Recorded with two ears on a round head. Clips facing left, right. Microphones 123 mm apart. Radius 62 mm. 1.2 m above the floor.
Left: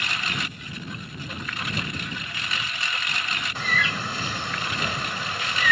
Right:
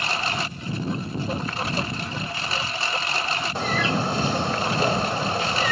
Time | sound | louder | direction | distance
0.0 | a lawn mower | right 5 dB | 25° right (ahead or behind) | ?
3.5 | a bird | right 5 dB | 30° right (ahead or behind) | ?